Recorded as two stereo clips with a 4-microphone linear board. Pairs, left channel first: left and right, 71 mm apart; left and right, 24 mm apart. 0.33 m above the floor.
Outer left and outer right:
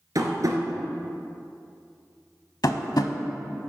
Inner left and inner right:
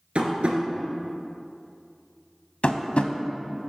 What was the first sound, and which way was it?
Tapping, 60° right (ahead or behind).